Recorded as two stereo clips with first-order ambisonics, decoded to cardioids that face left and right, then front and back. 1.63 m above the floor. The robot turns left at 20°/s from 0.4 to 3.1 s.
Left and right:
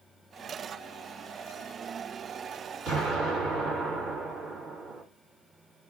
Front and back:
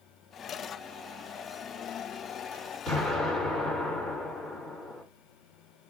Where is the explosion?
55° right, 1.9 m; by 5.0 s 60° right, 1.9 m.